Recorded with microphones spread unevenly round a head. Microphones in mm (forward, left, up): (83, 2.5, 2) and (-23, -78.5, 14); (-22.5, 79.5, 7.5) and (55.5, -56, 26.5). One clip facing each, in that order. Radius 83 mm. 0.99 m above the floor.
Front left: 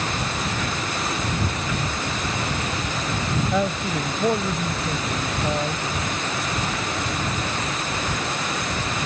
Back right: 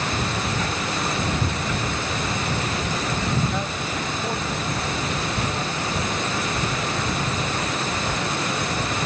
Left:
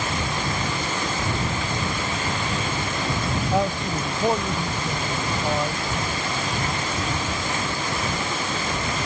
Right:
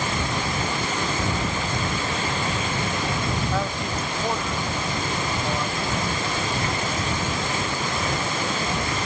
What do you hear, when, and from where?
3.5 s a man speaking: 45° left